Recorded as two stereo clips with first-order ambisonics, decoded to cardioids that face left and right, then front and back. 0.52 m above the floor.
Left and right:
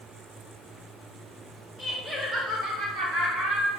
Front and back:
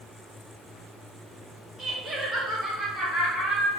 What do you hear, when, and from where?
1.8 s laughter: 145° left, 0.8 m; by 3.7 s 100° right, 2 m